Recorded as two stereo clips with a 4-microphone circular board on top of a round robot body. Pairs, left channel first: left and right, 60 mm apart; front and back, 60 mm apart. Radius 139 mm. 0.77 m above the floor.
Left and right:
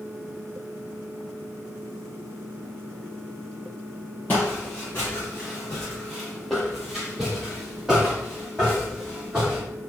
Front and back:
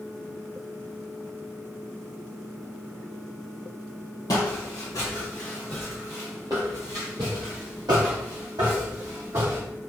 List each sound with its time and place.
4.3 s footsteps: 25° left, 1.1 m; by 9.6 s 165° right, 2 m